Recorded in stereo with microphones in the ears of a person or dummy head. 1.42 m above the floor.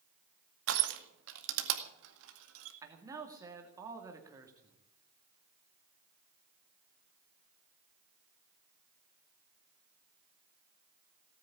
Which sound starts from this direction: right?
Crushing, at 0.7 s.